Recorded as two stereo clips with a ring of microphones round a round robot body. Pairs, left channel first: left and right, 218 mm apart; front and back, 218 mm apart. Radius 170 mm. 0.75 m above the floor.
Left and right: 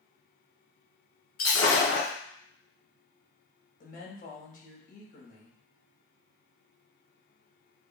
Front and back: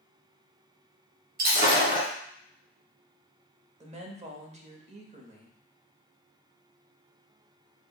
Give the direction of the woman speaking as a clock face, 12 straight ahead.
8 o'clock.